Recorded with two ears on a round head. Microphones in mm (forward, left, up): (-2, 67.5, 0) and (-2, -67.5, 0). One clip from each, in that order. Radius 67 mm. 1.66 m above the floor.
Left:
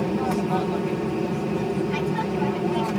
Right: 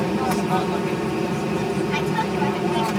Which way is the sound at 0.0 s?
30° right (ahead or behind).